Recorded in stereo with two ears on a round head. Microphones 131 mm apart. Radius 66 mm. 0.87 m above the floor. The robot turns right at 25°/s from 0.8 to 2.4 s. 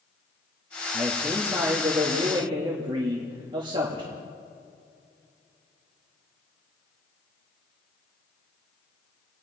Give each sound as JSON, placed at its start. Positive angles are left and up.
{"t": 0.9, "sound": "a man speaking", "azimuth_deg": 180, "distance_m": 1.6}